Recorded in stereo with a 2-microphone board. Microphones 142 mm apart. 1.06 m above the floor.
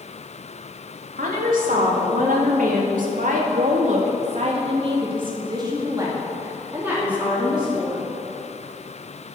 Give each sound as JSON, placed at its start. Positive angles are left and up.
{"t": 1.2, "sound": "a woman speaking", "side_deg": -70, "distance_m": 3.0}